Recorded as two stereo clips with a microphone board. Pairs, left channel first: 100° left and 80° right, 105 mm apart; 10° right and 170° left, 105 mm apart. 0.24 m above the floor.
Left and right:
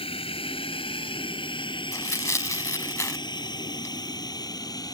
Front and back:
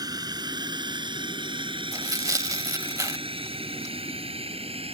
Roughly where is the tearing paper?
Behind left.